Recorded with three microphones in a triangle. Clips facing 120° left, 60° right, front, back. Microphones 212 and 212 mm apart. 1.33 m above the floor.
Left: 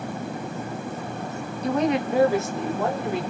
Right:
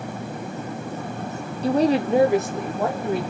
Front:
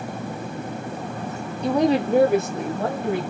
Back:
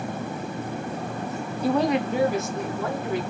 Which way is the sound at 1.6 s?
100° right.